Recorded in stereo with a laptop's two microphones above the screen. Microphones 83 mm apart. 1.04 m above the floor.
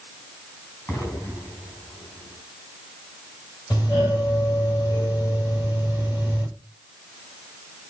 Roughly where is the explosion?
Left.